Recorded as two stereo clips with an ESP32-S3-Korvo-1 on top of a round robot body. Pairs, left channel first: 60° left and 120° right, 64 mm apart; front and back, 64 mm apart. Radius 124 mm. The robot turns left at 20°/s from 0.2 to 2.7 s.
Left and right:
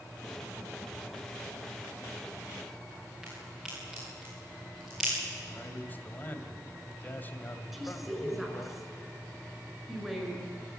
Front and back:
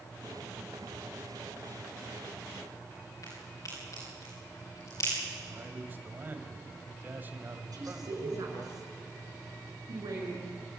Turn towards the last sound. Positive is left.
turn(degrees=150)